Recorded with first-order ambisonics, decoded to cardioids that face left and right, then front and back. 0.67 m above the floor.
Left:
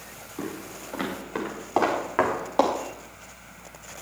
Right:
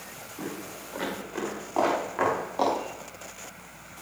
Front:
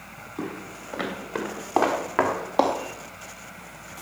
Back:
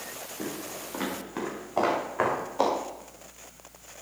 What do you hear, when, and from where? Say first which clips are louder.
0.4 s footsteps: left 2 dB, front 3 dB; 25° left, 6 m; by 2.8 s 35° left, 4.5 m